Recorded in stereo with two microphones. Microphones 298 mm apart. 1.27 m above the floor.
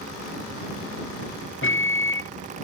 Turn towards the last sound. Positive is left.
turn(degrees=40)  # may be behind; listen again after turning